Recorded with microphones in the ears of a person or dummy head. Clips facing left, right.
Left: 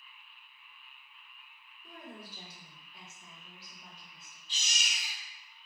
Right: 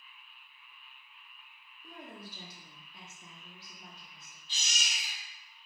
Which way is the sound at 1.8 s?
45° right (ahead or behind).